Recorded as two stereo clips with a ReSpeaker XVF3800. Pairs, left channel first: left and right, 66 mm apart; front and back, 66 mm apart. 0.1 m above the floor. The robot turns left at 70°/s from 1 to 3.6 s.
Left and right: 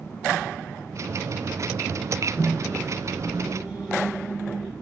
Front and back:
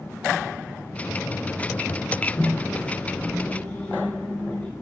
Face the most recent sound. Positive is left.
turn(degrees=-10)